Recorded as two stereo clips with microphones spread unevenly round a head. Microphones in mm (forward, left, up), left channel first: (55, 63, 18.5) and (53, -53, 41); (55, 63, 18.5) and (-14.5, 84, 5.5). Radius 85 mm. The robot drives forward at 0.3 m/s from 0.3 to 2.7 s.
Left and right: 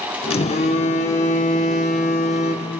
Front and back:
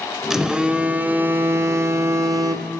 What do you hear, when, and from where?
0.3 s a phone buzzing: 70° left, 0.8 m; by 2.7 s 135° left, 0.9 m